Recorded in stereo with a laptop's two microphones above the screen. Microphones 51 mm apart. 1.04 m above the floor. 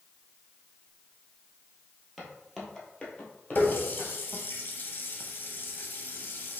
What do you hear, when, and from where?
2.2 s footsteps: 5° right (ahead or behind), 1.6 m; by 4.1 s 40° left (ahead or behind), 1.7 m
3.5 s a running tap: 40° left (ahead or behind), 0.6 m